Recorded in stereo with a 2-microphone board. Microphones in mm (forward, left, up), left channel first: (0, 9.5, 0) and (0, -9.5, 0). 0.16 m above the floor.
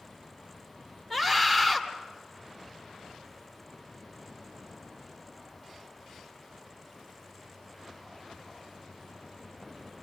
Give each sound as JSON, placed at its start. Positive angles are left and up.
{"t": 1.1, "sound": "a scream", "side_deg": 10, "distance_m": 1.6}